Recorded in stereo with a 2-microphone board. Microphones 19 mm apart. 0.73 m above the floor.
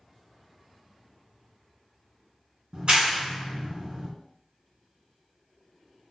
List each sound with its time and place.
2.7 s a clap: 50° right (ahead or behind), 1.2 m